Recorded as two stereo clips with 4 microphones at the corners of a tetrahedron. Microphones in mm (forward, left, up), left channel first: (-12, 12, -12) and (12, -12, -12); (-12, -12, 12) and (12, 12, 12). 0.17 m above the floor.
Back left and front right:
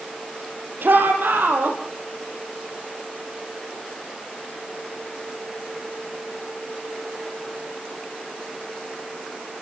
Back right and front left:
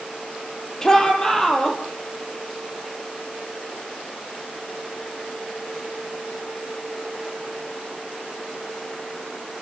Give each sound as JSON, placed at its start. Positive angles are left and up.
{"t": 0.8, "sound": "a shout", "azimuth_deg": -65, "distance_m": 5.5}